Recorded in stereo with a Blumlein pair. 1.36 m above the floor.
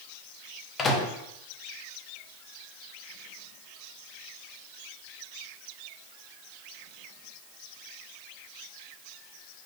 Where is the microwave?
20° left, 0.8 m.